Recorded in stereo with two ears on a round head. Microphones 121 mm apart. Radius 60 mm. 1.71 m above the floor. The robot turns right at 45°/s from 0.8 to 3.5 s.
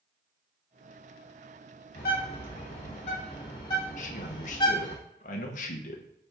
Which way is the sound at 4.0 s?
60° left (ahead or behind).